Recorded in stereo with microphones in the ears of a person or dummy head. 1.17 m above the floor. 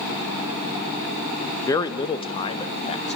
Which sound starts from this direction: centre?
A man speaking, at 1.6 s.